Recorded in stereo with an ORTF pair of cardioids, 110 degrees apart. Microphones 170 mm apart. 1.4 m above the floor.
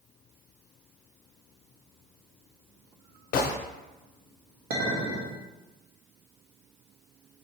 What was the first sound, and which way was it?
A gunshot, 60° left.